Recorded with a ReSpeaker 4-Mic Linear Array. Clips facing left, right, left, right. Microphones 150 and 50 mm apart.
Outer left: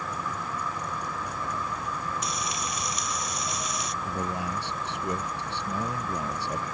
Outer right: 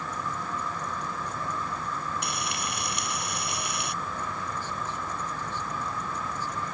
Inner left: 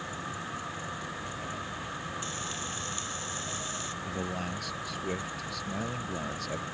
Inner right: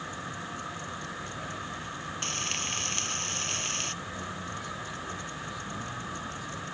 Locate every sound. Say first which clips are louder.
2.2 s frying: outer left 1 dB, inner right 2 dB; 65° right (ahead or behind)
4.0 s a man speaking: outer left 4 dB, inner left 3 dB; 75° left (ahead or behind)